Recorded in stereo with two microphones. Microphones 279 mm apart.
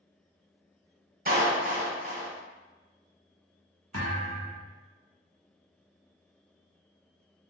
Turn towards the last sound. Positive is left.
turn(degrees=-70)  # may be behind; listen again after turning